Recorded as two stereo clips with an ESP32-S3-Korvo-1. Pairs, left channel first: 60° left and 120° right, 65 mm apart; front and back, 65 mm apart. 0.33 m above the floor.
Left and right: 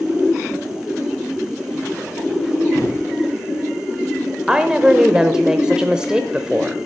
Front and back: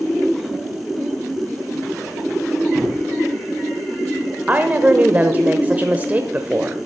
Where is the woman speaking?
Straight behind, 0.9 m.